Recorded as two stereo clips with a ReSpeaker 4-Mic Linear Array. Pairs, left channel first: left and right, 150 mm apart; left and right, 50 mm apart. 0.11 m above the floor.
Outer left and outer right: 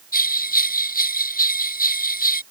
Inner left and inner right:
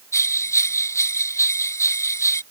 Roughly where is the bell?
Left.